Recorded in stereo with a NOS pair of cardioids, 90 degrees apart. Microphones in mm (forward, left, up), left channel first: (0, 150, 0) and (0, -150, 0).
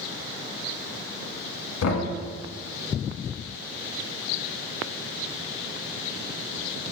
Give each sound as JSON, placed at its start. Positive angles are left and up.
{"t": 1.8, "sound": "knocking", "azimuth_deg": 60, "distance_m": 1.5}